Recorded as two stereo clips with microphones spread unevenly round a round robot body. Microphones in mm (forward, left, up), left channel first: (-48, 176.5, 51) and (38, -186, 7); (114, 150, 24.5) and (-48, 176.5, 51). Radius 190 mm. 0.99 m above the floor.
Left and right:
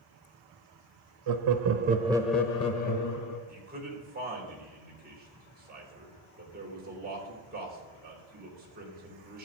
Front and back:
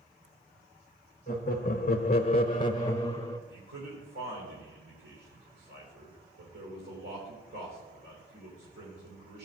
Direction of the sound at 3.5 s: 145° right.